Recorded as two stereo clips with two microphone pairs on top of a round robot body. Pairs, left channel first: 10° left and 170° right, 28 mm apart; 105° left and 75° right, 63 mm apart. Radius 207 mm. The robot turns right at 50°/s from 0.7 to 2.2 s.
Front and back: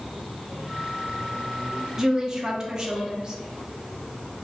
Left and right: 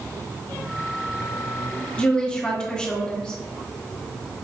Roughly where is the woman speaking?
Behind left.